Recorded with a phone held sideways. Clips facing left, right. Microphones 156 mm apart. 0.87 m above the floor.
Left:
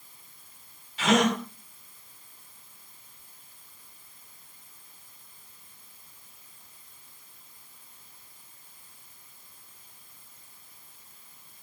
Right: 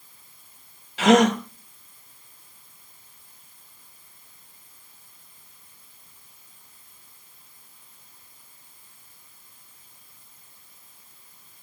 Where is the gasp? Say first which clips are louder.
Right 7 dB; 80° right, 1.9 m.